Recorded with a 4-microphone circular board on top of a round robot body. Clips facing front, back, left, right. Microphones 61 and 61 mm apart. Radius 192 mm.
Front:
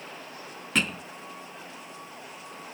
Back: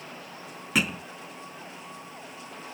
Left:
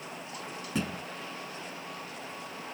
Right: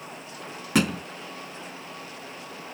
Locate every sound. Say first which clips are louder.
0.8 s a thud: back 1 dB, right 10 dB; 95° right